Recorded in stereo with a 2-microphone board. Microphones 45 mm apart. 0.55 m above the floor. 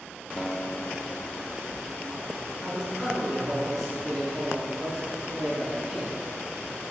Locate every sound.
0.4 s a guitar: 20° left (ahead or behind), 1.0 m
2.6 s a man speaking: 10° right (ahead or behind), 5.5 m